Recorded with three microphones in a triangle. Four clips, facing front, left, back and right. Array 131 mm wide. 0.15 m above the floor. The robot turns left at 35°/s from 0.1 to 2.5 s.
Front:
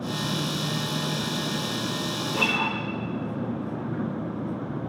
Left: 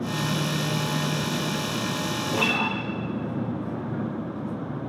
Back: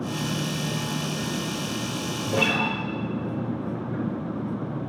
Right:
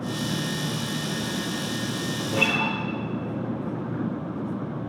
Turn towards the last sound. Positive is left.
turn(degrees=-175)